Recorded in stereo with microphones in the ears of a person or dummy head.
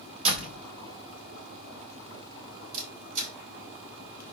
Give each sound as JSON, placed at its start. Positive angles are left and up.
{"t": 0.2, "sound": "a door slam", "side_deg": -35, "distance_m": 4.5}
{"t": 2.7, "sound": "a camera shutter", "side_deg": -45, "distance_m": 4.5}